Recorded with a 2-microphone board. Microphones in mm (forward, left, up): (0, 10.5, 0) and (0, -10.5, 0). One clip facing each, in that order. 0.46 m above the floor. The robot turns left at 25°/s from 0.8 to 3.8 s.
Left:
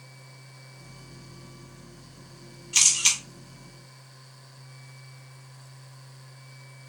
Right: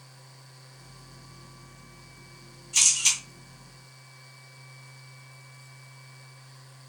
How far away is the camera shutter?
About 1.8 m.